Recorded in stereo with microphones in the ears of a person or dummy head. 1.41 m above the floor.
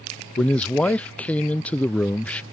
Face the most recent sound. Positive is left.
turn(degrees=5)  # may be behind; listen again after turning